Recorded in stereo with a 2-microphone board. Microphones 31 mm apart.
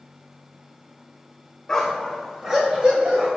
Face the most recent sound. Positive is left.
turn(degrees=-35)  # may be behind; listen again after turning